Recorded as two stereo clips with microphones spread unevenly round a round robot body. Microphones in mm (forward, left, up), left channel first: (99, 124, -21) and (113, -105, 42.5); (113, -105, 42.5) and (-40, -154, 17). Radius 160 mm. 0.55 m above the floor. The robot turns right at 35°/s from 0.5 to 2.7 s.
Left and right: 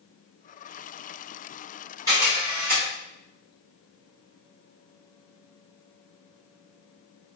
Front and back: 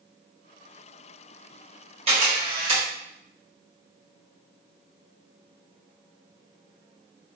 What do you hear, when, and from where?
2.1 s a camera shutter: 175° right, 1.2 m; by 2.8 s 155° right, 1.2 m